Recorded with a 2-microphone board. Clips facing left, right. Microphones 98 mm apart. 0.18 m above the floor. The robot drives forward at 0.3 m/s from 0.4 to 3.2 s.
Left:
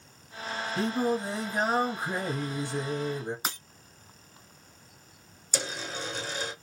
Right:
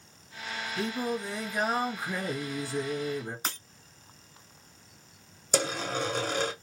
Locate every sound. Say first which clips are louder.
0.8 s singing: left 4 dB; 35° left (ahead or behind), 1.0 m; by 3.4 s 20° left (ahead or behind), 1.6 m
3.5 s breaking glass: left 1 dB; 15° left (ahead or behind), 0.6 m
5.5 s a dropped coin: right 6 dB; 55° right (ahead or behind), 1.2 m